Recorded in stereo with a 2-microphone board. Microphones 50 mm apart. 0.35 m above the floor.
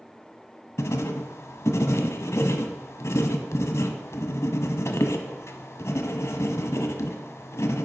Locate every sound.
0.8 s writing: 70° left (ahead or behind), 0.8 m